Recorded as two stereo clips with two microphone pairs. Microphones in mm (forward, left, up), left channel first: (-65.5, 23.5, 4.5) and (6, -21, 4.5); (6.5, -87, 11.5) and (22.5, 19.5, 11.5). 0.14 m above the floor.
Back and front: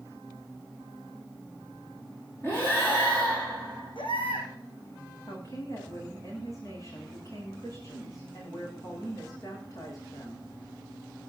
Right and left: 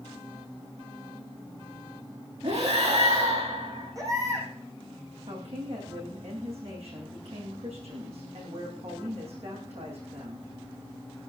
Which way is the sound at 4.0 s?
140° left.